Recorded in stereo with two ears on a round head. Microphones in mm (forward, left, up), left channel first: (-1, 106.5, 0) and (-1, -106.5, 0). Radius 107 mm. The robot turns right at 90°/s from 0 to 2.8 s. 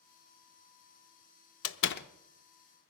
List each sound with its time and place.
1.6 s a door slam: 55° left (ahead or behind), 0.6 m; by 2.1 s 35° left (ahead or behind), 0.6 m